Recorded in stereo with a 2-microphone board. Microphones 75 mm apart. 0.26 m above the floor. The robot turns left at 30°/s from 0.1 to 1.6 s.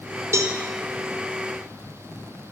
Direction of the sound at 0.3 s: 40° right (ahead or behind).